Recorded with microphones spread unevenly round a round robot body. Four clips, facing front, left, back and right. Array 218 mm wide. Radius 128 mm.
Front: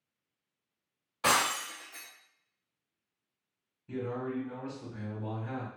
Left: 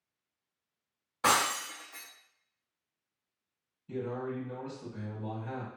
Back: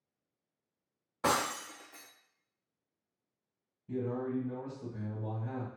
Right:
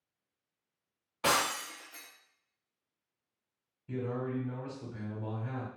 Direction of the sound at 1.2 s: 170° right.